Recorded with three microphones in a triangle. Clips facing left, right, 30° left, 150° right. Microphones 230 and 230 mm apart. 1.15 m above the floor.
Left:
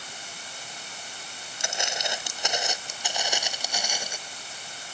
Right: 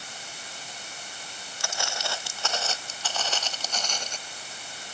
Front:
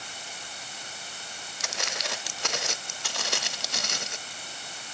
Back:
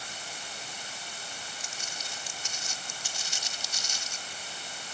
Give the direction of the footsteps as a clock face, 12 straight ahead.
11 o'clock.